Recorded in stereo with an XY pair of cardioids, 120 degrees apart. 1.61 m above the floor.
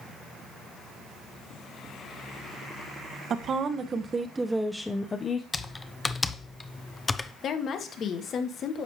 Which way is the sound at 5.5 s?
20° left.